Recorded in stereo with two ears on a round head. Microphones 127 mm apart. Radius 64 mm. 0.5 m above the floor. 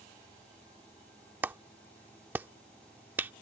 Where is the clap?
15° right (ahead or behind).